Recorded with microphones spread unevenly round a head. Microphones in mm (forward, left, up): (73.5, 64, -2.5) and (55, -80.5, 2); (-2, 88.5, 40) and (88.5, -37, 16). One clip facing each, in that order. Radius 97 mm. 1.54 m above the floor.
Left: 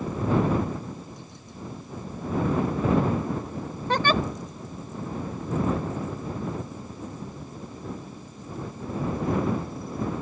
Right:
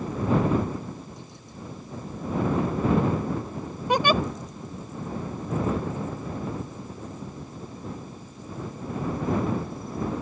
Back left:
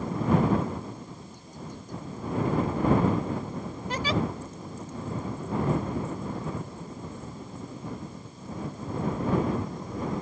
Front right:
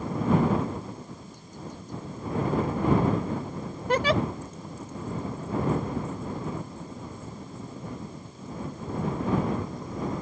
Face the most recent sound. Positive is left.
turn(degrees=-20)